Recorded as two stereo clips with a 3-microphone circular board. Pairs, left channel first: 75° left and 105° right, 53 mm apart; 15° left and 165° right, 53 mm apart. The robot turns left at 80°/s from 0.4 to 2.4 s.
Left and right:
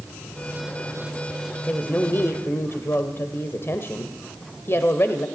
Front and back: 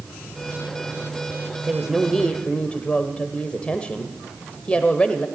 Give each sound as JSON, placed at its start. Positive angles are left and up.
{"t": 1.7, "sound": "a woman speaking", "azimuth_deg": 135, "distance_m": 1.3}